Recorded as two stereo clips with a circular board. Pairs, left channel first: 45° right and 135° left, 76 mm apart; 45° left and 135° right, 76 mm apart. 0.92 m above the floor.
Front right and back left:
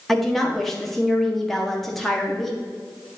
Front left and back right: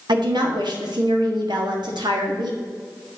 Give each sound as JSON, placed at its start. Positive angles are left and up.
{"t": 0.1, "sound": "a woman speaking", "azimuth_deg": -135, "distance_m": 1.4}